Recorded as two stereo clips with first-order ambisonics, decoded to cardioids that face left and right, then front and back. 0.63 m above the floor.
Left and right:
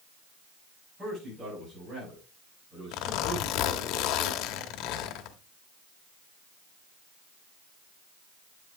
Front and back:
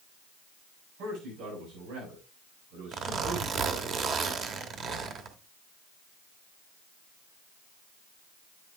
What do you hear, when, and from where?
1.0 s a man speaking: 160° right, 5.5 m
2.9 s a zipper: 120° left, 1.0 m